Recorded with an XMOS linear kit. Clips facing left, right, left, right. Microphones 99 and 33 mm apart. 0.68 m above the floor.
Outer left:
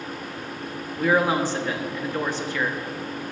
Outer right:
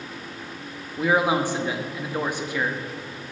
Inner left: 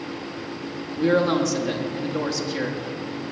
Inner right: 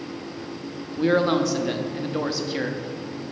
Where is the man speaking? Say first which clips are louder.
Even, even; 15° right (ahead or behind), 0.8 m.